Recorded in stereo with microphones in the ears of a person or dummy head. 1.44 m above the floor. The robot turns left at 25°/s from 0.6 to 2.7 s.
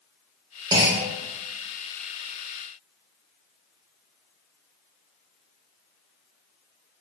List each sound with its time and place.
0.7 s a clunk: 20° right (ahead or behind), 0.8 m; by 1.1 s 25° right (ahead or behind), 0.8 m